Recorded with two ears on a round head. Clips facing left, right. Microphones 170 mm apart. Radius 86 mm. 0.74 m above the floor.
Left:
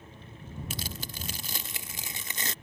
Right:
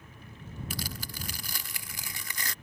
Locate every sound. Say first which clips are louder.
0.7 s tearing paper: right 2 dB; 20° left (ahead or behind)